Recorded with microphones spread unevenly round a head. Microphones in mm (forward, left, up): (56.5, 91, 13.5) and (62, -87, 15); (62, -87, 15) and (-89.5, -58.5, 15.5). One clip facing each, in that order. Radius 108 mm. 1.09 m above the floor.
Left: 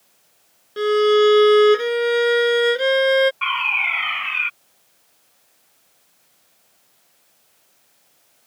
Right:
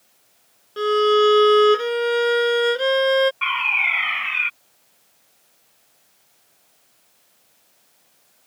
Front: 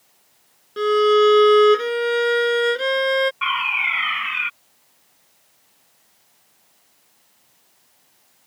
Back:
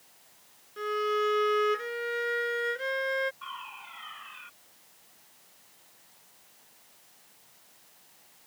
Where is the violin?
15° left.